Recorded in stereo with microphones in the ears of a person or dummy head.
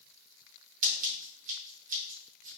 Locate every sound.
0.8 s scissors: 45° right (ahead or behind), 2.5 m